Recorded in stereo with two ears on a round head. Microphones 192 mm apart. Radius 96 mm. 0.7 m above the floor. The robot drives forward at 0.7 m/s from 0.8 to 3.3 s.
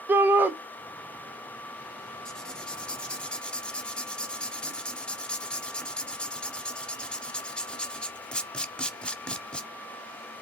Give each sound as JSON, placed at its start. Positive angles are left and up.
{"t": 0.1, "sound": "a shout", "side_deg": -10, "distance_m": 0.5}
{"t": 2.2, "sound": "writing", "side_deg": 5, "distance_m": 0.7}